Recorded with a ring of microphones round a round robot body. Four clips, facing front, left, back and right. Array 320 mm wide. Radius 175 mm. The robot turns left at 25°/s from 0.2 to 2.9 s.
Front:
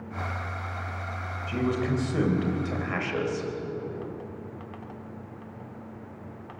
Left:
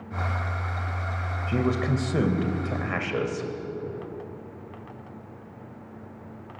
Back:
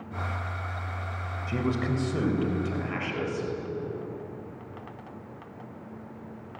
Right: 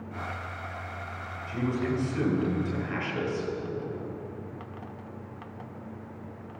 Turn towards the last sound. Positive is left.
turn(degrees=70)